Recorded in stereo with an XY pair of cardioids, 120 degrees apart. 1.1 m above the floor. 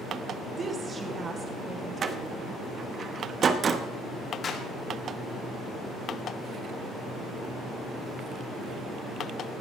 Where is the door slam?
40° right, 1.1 m.